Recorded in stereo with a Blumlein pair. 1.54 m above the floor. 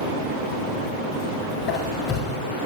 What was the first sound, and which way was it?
A squeak, 30° left.